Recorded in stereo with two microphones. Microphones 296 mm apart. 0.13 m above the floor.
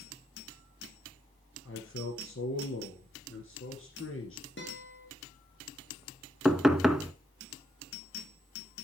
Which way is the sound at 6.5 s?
Centre (ahead or behind).